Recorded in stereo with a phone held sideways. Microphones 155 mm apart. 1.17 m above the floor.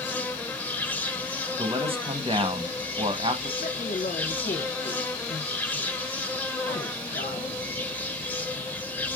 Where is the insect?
10° left (ahead or behind), 0.8 m.